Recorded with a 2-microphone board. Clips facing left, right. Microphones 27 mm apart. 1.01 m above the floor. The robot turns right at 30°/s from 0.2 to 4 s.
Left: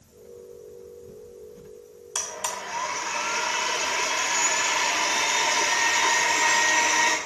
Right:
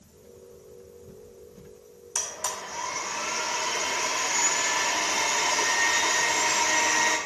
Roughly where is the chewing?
I don't hear chewing.